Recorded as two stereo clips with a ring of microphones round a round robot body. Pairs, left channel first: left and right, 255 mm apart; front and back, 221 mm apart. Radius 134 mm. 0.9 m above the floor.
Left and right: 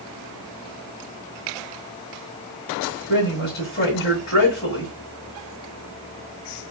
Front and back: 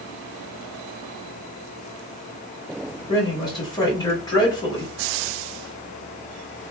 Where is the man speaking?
70° left, 1.8 m.